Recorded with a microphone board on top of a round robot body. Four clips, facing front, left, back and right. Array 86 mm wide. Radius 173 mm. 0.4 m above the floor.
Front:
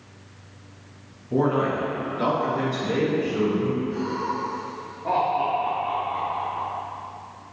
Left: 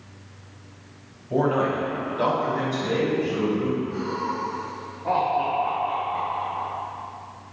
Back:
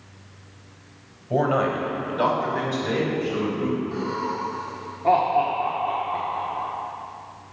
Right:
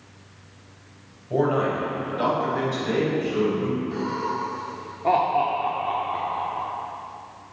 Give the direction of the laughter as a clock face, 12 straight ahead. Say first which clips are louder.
Right 1 dB, even; 4 o'clock.